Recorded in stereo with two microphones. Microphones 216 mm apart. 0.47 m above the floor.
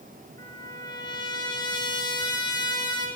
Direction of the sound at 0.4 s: 20° left (ahead or behind).